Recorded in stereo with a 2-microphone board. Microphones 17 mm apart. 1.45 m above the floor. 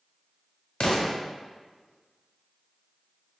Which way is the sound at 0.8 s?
65° left (ahead or behind).